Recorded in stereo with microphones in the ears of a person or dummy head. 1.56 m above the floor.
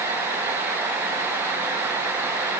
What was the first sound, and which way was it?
Only background noise.